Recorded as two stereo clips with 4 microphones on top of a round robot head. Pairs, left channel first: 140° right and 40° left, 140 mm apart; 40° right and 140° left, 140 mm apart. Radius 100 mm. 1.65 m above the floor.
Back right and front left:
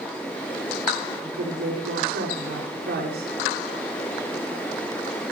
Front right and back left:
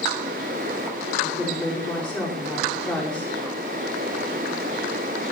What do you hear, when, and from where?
1.2 s a woman speaking: 50° left, 7 m